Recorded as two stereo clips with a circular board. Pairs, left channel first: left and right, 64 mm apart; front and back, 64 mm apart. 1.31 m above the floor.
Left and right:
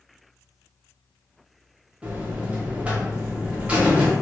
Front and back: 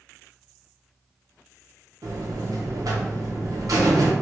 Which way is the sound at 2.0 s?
160° right.